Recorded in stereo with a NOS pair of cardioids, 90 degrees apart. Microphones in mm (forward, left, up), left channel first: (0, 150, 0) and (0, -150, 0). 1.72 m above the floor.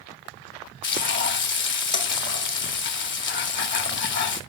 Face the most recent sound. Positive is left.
turn(degrees=40)